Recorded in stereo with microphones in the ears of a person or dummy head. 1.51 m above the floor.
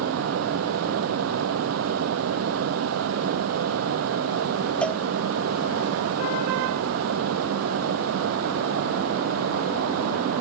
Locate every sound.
0.0 s a fan: 85° right
4.8 s a cowbell: 10° left (ahead or behind)